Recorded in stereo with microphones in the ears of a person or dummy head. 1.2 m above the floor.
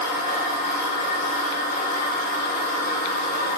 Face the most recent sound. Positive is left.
turn(degrees=50)  # may be behind; listen again after turning